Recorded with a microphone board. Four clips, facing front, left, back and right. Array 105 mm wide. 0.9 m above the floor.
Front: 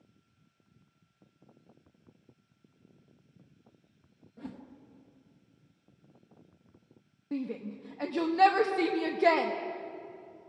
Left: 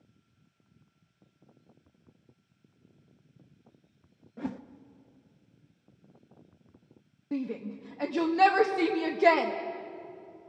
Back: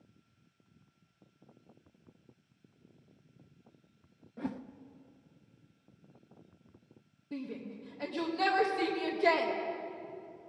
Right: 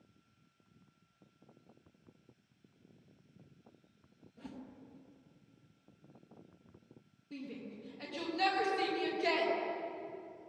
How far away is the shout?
About 1.1 m.